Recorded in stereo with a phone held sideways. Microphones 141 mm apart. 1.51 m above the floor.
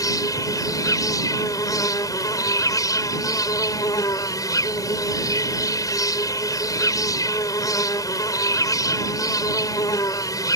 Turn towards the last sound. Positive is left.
turn(degrees=25)  # may be behind; listen again after turning